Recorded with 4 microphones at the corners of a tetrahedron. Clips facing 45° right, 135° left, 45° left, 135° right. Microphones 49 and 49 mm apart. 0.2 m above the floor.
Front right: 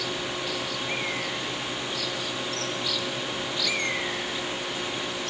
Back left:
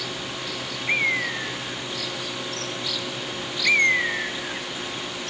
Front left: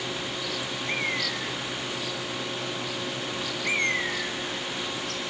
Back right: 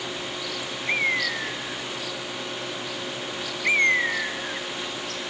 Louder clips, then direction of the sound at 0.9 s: Back left 11 dB, back right 6 dB; 170° left.